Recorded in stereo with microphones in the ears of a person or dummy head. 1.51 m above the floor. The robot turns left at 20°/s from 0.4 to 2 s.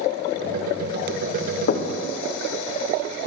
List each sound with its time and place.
1.7 s knocking: 50° left (ahead or behind), 0.5 m; by 1.9 s 55° left (ahead or behind), 0.5 m